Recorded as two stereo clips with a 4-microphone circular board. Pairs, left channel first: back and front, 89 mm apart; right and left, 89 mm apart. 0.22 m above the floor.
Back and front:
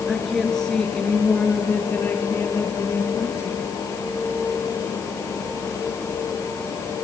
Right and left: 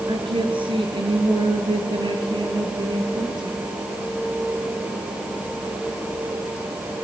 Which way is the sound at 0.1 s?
90° left.